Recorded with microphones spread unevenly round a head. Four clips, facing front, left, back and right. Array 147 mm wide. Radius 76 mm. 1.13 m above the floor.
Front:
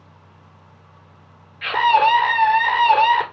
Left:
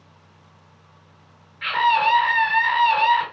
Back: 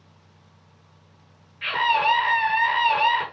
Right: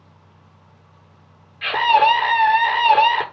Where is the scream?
75° right, 3 m.